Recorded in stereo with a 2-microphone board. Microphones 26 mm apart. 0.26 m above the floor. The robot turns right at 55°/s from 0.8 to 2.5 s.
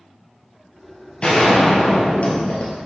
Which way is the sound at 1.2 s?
40° left.